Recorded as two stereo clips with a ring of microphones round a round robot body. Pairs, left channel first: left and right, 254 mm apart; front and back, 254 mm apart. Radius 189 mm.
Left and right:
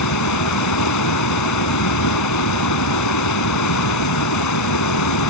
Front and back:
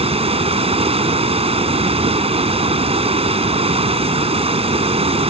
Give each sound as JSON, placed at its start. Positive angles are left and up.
{"t": 0.0, "sound": "running water", "azimuth_deg": 115}